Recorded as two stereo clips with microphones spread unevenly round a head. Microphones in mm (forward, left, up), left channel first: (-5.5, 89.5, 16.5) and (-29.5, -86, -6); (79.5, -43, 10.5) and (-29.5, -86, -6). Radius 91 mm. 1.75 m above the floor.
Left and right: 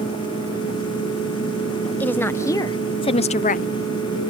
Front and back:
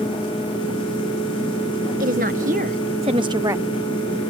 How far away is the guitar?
I don't hear a guitar.